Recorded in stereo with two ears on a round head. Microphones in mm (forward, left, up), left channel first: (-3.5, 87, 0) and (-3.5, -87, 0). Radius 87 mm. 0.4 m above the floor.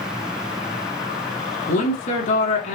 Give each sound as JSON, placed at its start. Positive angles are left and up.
{"t": 1.7, "sound": "a woman speaking", "side_deg": 45, "distance_m": 4.0}